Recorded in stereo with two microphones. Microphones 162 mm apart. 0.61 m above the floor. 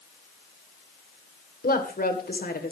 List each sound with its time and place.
1.6 s a woman speaking: 70° left (ahead or behind), 2.5 m